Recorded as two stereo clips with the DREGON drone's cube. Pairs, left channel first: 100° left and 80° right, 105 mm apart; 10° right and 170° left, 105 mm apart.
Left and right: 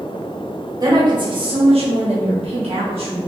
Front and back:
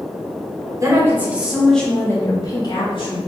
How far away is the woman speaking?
About 1.0 m.